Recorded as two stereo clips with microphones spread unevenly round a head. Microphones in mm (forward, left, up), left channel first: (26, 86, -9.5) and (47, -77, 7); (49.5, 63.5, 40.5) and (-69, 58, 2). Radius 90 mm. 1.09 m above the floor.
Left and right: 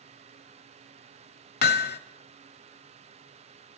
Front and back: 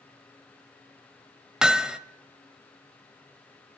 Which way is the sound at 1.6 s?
85° left.